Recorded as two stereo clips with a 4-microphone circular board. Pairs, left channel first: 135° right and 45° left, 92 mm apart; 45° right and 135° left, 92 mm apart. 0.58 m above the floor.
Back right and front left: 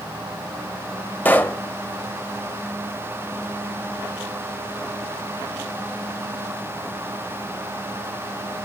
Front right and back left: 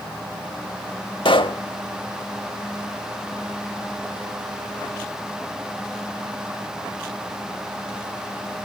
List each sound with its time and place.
1.2 s a pop: 65° right, 1.4 m